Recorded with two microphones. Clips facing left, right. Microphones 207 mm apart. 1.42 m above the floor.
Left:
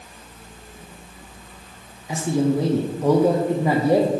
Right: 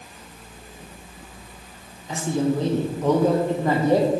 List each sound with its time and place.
2.1 s a man speaking: 10° left (ahead or behind), 0.6 m